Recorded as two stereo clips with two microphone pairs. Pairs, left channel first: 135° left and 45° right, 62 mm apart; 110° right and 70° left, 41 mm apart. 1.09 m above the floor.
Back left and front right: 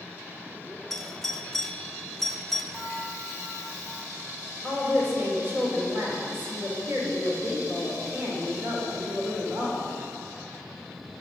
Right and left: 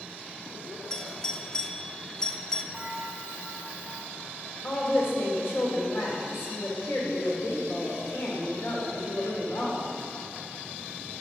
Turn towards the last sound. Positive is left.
turn(degrees=-100)